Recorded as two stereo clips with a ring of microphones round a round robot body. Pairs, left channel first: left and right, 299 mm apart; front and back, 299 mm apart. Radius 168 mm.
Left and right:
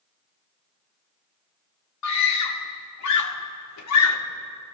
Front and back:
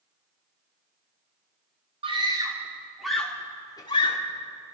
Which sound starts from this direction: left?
A scream, at 2.0 s.